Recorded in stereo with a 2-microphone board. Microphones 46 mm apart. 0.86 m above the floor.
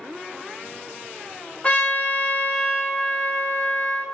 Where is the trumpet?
30° left (ahead or behind), 0.8 m.